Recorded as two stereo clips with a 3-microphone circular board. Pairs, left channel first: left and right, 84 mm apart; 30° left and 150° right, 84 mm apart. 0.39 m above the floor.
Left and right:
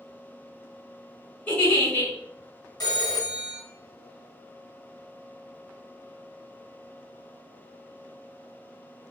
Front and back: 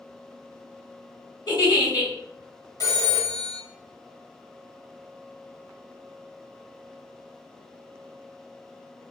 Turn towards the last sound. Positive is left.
turn(degrees=65)